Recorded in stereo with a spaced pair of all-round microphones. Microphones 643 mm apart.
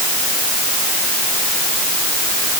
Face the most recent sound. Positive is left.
No sound to turn to.